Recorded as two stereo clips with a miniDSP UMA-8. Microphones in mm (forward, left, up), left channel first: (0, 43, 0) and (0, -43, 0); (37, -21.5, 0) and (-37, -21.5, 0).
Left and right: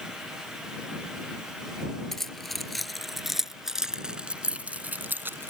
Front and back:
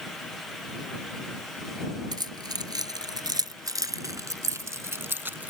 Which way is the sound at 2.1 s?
175° left.